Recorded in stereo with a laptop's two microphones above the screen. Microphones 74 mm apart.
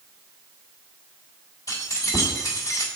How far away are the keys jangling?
About 2.5 m.